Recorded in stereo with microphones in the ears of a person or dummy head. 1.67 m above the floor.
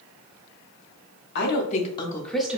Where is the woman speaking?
65° left (ahead or behind), 0.8 m; by 2.6 s 10° right (ahead or behind), 0.8 m.